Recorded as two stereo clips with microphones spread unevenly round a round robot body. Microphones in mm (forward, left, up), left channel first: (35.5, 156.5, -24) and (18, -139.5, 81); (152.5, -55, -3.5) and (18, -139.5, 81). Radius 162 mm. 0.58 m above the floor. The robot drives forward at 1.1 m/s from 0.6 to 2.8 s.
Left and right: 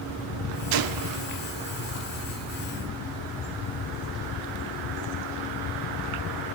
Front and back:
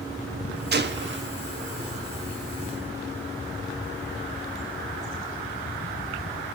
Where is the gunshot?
110° right, 1.3 m; by 1.2 s 135° right, 1.6 m.